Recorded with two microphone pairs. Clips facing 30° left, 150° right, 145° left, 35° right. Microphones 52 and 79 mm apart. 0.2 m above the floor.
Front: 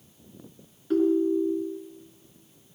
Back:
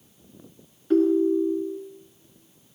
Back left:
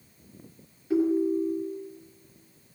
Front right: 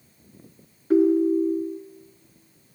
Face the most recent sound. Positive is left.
turn(degrees=-65)